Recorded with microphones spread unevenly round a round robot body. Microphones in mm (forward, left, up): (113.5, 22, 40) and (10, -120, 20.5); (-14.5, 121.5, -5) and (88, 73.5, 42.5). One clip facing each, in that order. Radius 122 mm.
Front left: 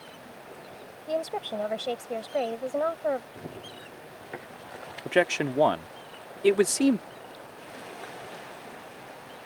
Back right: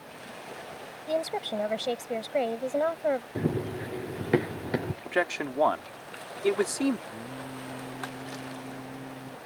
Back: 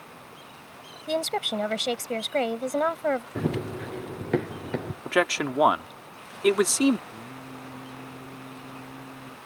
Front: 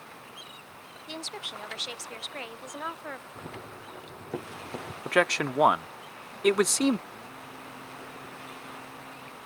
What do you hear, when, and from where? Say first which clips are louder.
1.1 s a woman speaking: back right 1 dB, back 14 dB; 155° left
3.4 s running footsteps: back right 12 dB, back 13 dB; 175° right; by 5.0 s 140° right
5.0 s a man speaking: front left 8 dB, even; 110° left
7.1 s singing: back right 5 dB, back 3 dB; 140° right